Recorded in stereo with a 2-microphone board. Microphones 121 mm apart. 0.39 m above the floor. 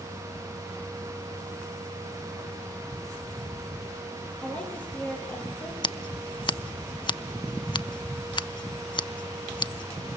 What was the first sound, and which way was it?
A woman speaking, 10° left (ahead or behind).